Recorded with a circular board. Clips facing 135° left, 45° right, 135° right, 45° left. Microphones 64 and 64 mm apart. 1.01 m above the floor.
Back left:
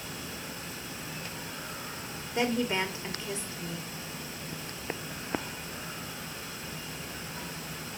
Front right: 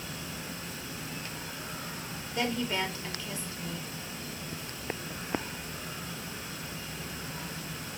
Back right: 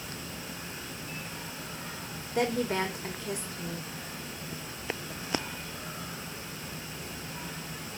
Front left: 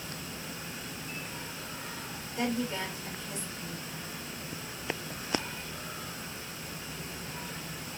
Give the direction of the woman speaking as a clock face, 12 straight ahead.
5 o'clock.